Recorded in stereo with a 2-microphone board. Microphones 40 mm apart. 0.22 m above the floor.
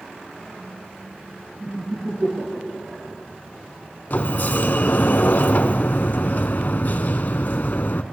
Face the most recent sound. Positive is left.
turn(degrees=50)  # may be behind; listen again after turning